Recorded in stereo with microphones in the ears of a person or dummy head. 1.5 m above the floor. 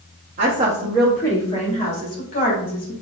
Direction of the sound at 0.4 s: 40° right (ahead or behind).